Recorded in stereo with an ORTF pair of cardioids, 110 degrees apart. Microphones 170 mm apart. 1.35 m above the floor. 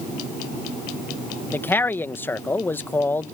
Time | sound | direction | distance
1.5 | a man speaking | 10° left | ?